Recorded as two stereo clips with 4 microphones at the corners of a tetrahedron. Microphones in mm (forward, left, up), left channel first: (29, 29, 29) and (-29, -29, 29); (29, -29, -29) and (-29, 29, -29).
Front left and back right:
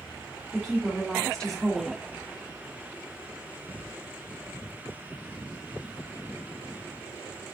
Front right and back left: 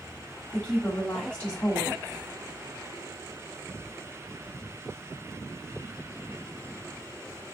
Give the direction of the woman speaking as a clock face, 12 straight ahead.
1 o'clock.